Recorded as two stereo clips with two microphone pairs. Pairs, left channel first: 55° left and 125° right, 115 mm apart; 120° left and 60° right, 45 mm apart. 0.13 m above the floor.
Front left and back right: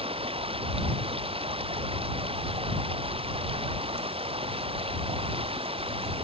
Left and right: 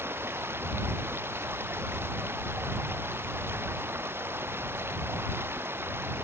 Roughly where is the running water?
Right.